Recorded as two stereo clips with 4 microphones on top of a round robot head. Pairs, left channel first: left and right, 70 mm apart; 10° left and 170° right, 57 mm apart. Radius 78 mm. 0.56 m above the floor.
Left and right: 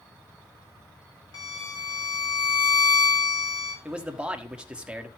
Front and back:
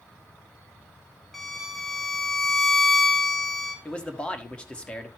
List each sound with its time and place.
1.3 s a violin: 95° left, 2 m
3.9 s a man speaking: 35° right, 1.3 m